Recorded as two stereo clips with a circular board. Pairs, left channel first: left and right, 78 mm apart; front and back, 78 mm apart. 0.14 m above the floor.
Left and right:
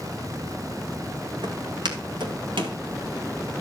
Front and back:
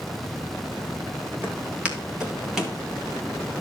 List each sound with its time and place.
1.4 s footsteps: 110° right, 4.5 m; by 2.8 s 95° right, 4.5 m